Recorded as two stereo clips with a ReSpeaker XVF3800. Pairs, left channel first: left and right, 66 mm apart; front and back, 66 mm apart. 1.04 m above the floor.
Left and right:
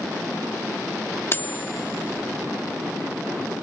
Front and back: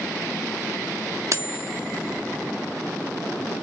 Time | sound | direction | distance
1.3 | cutlery clinking | 140° left | ?